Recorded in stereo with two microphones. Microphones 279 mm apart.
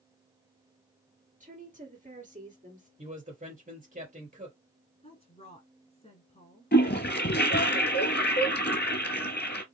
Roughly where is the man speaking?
Right.